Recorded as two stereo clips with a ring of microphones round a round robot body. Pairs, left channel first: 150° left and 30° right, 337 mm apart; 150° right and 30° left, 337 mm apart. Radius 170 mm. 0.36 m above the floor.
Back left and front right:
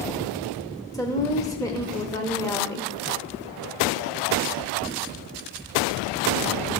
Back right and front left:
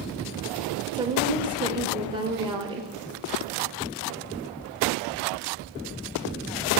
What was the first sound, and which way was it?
A woman speaking, 85° left.